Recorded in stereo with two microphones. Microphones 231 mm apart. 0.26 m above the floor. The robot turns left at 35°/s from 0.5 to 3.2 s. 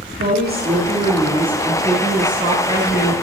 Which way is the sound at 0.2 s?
135° right.